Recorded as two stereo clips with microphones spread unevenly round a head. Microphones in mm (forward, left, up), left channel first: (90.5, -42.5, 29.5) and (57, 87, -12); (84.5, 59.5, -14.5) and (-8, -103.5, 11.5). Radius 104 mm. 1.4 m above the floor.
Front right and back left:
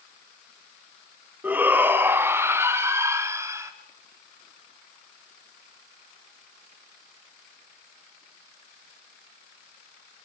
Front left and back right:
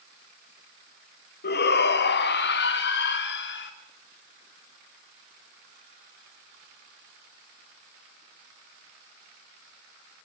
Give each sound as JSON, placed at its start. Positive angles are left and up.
{"t": 1.4, "sound": "a shout", "azimuth_deg": 25, "distance_m": 2.0}